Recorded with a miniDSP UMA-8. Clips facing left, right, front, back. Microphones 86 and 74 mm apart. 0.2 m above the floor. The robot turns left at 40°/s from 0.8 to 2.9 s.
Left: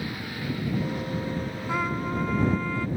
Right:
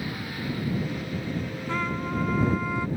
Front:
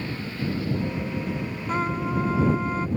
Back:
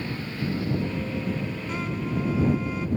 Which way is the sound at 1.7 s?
20° left.